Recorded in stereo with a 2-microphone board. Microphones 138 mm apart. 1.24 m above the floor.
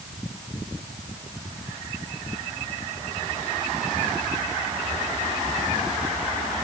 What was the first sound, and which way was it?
Only background noise.